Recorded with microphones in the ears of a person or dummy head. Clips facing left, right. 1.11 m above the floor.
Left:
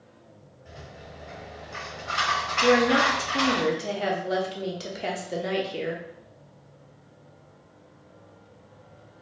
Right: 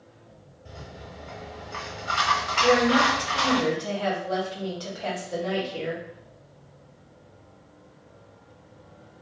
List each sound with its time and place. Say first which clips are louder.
0.7 s a rattle: right 2 dB; 40° right (ahead or behind), 1.2 m
2.6 s a woman speaking: even; 30° left (ahead or behind), 0.6 m